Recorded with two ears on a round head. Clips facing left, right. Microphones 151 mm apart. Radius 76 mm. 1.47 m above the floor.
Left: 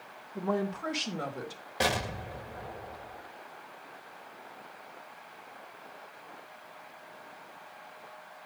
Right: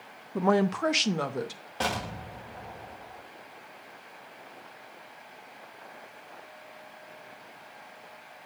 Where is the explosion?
15° left (ahead or behind), 1.3 m.